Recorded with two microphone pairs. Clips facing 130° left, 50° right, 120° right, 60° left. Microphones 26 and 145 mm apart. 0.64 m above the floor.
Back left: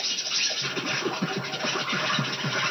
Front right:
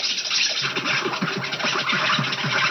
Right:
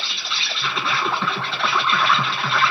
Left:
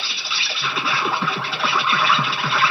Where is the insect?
25° right, 1.1 m.